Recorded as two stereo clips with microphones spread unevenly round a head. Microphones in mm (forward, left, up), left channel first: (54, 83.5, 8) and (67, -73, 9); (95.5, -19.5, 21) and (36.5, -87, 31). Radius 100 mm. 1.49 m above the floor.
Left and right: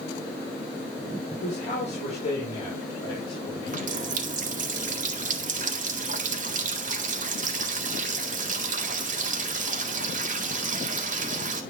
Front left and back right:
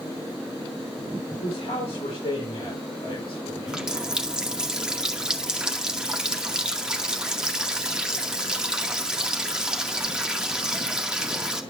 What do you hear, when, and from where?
1.4 s a man speaking: 55° left, 5 m; by 3.9 s 30° left, 7 m
3.7 s a running tap: 50° right, 2 m